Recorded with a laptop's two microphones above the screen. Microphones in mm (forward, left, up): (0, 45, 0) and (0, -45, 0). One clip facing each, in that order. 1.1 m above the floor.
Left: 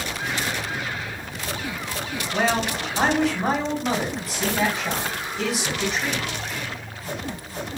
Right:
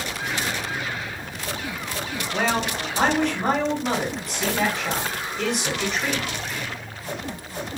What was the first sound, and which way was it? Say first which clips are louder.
A man speaking: left 1 dB; 5° left (ahead or behind).